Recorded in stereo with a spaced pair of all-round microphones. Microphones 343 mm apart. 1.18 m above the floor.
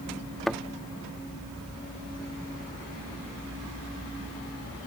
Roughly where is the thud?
Centre.